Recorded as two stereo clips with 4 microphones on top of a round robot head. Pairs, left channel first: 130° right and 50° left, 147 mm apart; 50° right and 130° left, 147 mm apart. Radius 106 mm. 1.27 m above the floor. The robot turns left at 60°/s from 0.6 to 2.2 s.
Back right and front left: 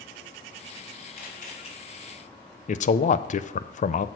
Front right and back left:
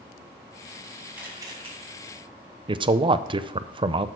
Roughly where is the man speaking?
Behind.